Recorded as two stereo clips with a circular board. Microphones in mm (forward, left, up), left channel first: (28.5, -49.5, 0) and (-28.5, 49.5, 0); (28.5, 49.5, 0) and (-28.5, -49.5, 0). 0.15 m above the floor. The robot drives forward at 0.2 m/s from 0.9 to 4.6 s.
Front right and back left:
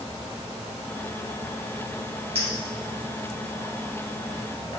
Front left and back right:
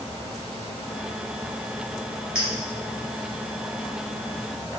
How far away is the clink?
About 1.8 m.